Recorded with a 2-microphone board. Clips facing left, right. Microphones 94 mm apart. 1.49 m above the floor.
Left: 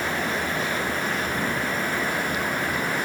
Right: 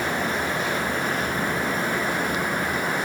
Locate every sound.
Only background noise.